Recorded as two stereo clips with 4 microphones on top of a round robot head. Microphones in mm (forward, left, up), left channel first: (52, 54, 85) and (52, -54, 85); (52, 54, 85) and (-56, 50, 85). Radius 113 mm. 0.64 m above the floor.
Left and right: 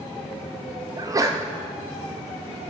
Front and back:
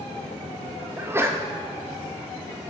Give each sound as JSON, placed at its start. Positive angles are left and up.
{"t": 1.0, "sound": "a sneeze", "azimuth_deg": -125, "distance_m": 0.6}